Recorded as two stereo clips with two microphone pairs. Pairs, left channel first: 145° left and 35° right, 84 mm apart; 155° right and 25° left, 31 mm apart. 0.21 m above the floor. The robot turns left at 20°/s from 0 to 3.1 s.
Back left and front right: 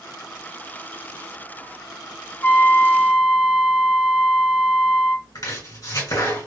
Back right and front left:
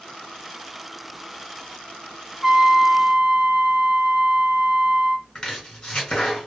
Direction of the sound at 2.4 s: 105° left.